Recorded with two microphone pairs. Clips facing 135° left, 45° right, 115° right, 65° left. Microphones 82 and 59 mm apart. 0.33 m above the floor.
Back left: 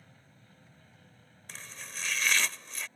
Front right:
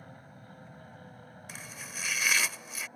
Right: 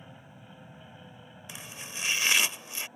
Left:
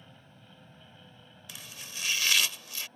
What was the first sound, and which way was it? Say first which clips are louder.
An aircraft: front right 10 dB, right 5 dB; 50° right.